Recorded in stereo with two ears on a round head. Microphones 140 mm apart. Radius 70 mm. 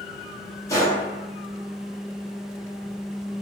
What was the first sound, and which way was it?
A gunshot, 20° left (ahead or behind).